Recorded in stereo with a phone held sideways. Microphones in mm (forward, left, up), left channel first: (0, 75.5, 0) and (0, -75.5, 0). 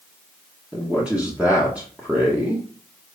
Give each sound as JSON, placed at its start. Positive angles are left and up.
{"t": 0.7, "sound": "a man speaking", "side_deg": -10, "distance_m": 1.5}